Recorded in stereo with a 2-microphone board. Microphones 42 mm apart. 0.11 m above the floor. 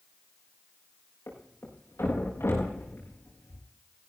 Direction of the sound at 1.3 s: 80° left.